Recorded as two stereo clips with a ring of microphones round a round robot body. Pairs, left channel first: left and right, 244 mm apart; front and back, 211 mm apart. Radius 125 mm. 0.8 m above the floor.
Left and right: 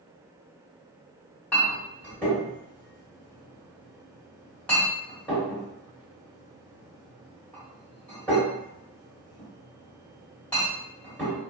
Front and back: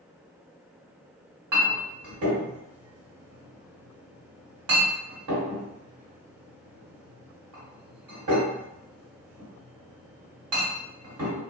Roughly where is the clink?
Behind.